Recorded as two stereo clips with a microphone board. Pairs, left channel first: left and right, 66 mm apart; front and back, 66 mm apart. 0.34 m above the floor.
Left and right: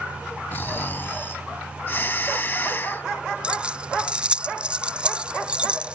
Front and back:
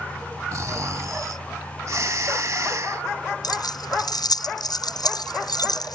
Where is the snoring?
145° left.